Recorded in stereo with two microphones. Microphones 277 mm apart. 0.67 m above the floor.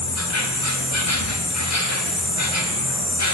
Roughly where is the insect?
Left.